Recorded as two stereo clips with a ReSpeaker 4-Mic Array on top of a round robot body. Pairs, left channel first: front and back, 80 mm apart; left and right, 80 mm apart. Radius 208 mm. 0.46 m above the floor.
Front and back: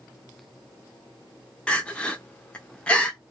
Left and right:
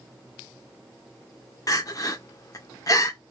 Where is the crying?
70° left, 1.3 m.